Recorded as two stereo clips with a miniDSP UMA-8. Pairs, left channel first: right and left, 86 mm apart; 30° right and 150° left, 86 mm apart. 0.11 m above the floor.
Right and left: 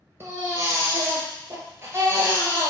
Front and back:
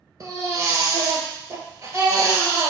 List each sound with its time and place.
0.2 s a baby crying: 135° left, 1.5 m